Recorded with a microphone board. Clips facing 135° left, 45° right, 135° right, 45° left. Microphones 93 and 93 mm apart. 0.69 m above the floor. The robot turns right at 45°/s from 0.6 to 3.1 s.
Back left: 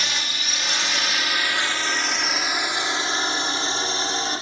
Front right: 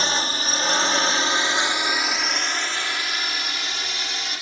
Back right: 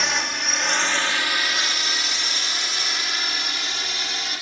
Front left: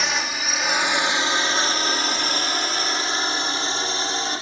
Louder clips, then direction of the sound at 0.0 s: Front right 5 dB, even; 45° right.